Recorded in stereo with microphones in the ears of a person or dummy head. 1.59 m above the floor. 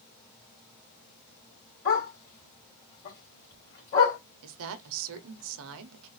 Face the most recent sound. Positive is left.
turn(degrees=-70)  # may be behind; listen again after turning